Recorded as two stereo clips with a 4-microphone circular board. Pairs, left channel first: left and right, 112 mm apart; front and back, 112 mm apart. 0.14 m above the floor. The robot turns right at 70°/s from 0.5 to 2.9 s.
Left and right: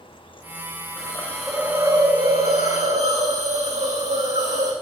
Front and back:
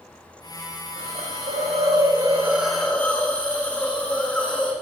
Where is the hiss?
145° left, 4 m; by 4.7 s 80° right, 4 m.